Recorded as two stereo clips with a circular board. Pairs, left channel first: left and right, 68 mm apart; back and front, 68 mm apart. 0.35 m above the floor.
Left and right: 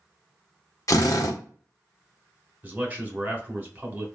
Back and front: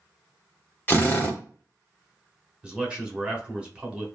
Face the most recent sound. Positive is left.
turn(degrees=-60)